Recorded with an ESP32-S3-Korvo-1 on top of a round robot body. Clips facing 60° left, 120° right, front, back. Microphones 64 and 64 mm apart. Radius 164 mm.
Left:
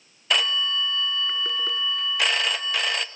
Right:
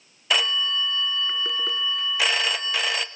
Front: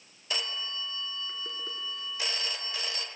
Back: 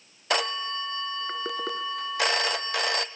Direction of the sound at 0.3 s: 150° left.